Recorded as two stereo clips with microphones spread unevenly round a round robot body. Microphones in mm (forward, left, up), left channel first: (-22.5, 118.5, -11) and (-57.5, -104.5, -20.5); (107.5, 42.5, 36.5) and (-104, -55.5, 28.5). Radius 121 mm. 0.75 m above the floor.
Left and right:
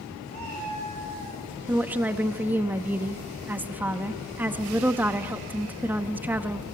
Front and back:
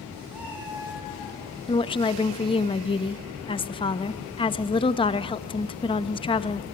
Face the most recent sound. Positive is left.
turn(degrees=-25)